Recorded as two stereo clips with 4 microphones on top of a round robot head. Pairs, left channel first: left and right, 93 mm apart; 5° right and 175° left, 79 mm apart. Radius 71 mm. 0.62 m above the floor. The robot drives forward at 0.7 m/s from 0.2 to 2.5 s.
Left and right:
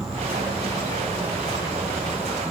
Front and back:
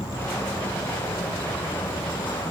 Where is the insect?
5° right, 3 m.